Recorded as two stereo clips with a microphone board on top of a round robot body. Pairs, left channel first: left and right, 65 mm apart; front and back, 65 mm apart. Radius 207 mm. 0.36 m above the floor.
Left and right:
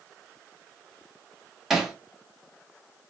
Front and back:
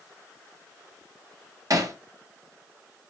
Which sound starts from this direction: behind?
Hammering, at 1.7 s.